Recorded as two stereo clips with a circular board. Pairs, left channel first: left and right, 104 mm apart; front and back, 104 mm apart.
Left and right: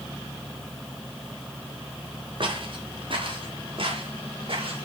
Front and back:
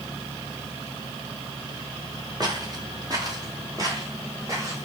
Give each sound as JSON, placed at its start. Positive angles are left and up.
{"t": 2.4, "sound": "footsteps", "azimuth_deg": -125, "distance_m": 3.5}